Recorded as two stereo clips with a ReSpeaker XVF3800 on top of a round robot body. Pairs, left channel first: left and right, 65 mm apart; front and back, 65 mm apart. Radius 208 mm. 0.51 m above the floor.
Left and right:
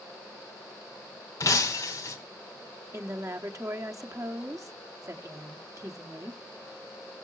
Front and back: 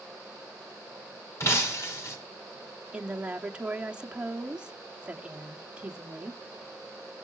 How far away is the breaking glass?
About 2 m.